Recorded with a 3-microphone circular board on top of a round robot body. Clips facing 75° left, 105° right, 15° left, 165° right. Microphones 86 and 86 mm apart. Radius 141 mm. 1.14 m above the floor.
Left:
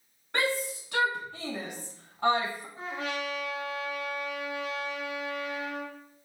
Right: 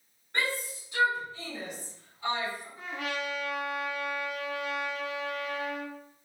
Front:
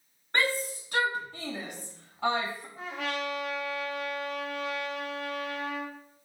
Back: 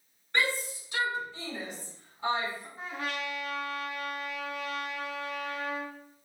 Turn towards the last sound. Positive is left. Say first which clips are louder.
# left 2 dB, front 3 dB
turn(degrees=15)